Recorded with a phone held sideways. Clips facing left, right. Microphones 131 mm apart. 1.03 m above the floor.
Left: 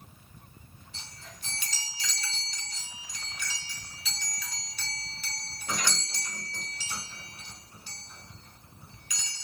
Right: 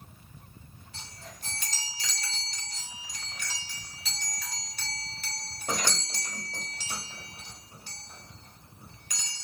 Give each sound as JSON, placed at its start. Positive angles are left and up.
{"t": 0.9, "sound": "a chime", "side_deg": -50, "distance_m": 1.6}